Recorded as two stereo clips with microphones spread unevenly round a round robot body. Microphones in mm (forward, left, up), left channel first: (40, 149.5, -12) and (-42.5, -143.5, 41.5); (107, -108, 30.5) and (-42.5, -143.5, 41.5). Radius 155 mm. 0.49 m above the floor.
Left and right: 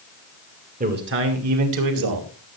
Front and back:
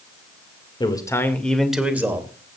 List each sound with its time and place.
0.8 s a man speaking: 40° right, 2 m; by 2.3 s 95° right, 3 m